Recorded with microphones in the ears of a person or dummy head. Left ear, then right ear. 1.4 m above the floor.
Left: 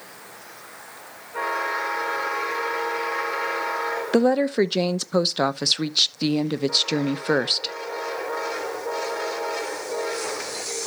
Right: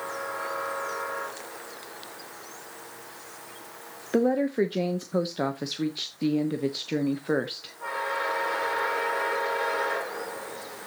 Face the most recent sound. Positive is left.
turn(degrees=55)  # may be behind; listen again after turning